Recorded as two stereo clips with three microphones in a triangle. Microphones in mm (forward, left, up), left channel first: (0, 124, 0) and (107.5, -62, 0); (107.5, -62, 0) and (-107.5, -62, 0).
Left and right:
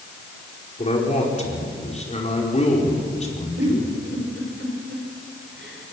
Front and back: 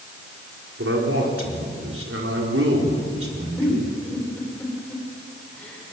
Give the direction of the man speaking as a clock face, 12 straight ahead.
6 o'clock.